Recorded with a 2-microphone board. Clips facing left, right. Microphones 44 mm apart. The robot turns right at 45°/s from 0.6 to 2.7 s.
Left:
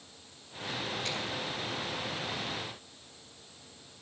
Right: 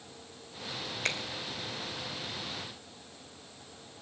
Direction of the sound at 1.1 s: 60° right (ahead or behind).